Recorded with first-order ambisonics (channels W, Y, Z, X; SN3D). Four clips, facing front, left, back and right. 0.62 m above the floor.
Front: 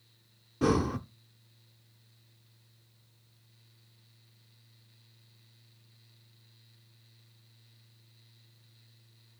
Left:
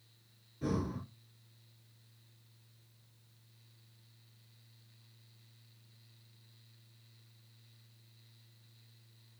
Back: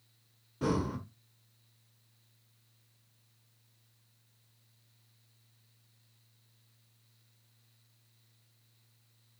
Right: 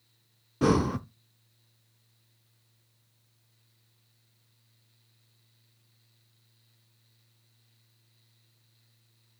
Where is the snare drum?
I don't hear a snare drum.